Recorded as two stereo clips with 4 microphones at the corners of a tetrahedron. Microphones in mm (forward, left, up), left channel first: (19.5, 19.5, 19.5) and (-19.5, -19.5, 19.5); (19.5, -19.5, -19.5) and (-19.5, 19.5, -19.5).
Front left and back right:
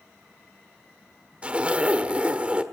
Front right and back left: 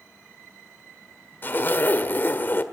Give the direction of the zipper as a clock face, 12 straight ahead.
2 o'clock.